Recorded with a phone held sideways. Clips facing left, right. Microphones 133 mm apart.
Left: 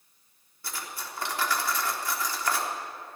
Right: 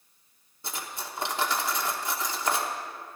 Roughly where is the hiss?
I don't hear a hiss.